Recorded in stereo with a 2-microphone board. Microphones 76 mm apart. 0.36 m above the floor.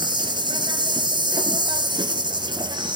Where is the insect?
80° right, 1.7 m.